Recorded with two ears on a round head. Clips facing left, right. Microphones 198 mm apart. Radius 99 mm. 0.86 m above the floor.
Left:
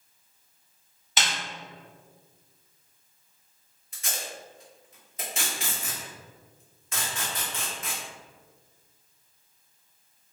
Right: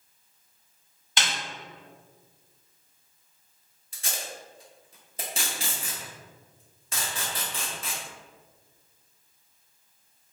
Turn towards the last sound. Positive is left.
turn(degrees=-30)  # may be behind; listen again after turning